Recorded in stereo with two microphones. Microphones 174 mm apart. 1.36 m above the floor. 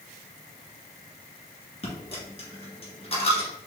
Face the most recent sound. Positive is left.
turn(degrees=35)  # may be behind; listen again after turning